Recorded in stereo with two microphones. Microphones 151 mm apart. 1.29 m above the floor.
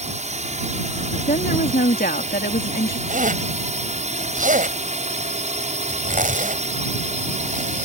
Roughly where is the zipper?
Right.